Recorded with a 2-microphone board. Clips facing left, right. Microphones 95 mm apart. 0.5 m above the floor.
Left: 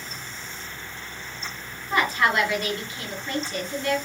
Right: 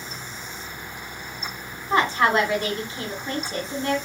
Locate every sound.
1.9 s a woman speaking: 30° right (ahead or behind), 1.3 m